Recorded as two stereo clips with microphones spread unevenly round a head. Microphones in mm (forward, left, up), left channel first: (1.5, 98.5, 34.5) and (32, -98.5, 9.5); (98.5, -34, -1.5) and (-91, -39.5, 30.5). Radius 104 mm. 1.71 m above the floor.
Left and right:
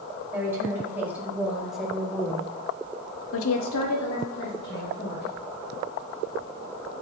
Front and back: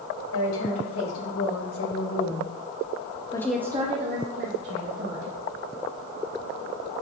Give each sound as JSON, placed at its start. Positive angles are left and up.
{"t": 0.3, "sound": "a woman speaking", "azimuth_deg": 0, "distance_m": 4.5}